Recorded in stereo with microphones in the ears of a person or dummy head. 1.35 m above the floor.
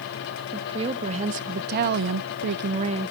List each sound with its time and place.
0.5 s a woman speaking: 30° right (ahead or behind), 1.7 m; by 3.1 s 25° right (ahead or behind), 0.9 m